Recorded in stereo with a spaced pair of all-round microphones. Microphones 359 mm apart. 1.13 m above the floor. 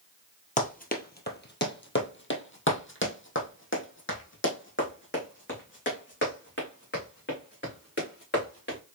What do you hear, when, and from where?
0.6 s running footsteps: 20° left (ahead or behind), 1.2 m; by 8.8 s 30° left (ahead or behind), 4.5 m